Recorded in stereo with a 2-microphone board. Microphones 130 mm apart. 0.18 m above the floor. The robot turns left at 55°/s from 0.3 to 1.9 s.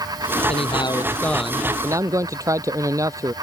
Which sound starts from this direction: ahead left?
A man speaking, at 0.5 s.